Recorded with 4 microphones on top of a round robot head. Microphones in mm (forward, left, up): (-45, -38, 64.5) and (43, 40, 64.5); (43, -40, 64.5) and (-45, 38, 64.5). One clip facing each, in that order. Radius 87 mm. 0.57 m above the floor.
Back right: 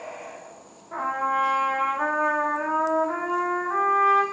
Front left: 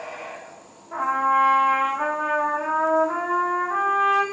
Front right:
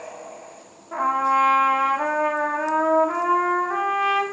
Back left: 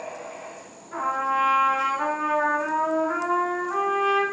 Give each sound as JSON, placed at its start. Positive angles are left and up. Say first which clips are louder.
{"t": 0.9, "sound": "a trumpet", "louder": "front left 4 dB, front right 5 dB", "azimuth_deg": -40, "distance_m": 0.5}